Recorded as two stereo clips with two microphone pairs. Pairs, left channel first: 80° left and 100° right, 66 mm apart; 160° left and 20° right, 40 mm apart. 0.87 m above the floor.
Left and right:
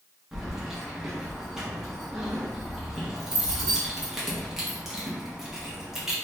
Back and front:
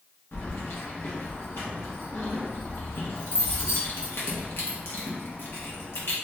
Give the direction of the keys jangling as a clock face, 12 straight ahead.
6 o'clock.